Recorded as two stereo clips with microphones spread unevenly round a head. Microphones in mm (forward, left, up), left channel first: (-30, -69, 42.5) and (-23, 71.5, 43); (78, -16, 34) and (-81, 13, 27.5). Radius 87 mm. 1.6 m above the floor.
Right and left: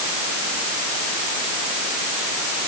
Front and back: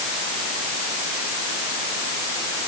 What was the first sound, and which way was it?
Only background noise.